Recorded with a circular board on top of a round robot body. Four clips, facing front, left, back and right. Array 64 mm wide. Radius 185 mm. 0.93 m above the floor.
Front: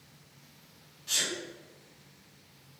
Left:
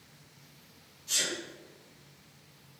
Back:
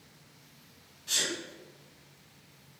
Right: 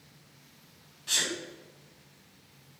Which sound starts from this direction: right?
A sneeze, at 1.1 s.